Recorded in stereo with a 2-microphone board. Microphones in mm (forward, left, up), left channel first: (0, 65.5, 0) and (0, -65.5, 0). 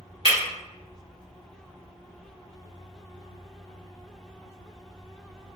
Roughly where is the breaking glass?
Left.